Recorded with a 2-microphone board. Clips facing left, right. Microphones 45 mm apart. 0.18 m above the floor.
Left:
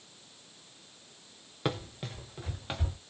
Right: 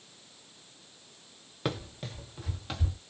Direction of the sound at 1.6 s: 5° left (ahead or behind).